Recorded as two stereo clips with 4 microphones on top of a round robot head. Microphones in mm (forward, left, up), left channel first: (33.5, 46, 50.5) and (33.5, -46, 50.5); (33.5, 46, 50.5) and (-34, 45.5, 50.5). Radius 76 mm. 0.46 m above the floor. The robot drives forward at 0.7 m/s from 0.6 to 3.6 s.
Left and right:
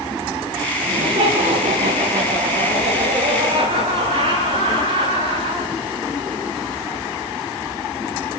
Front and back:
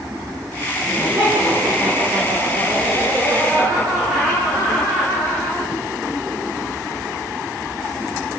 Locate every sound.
0.8 s laughter: 100° right, 8 m; by 5.7 s 115° right, 9 m